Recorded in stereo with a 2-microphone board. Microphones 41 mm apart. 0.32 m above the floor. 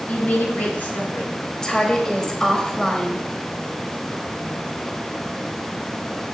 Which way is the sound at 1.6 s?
15° left (ahead or behind).